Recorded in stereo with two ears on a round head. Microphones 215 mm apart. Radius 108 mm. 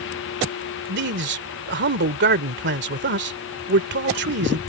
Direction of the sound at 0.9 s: 50° right (ahead or behind).